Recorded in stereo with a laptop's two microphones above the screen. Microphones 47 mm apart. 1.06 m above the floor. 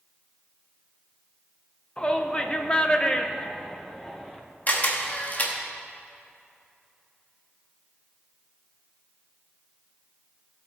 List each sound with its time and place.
2.0 s a shout: 20° left (ahead or behind), 0.8 m; by 4.4 s 10° left (ahead or behind), 1.1 m
4.7 s a camera shutter: 35° left (ahead or behind), 1.0 m